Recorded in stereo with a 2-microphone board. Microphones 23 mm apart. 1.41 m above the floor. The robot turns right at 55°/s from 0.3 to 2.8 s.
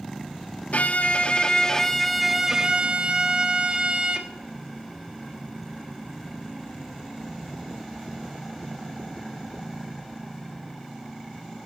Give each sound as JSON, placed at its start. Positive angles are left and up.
{"t": 0.7, "sound": "a violin", "azimuth_deg": 100, "distance_m": 3.0}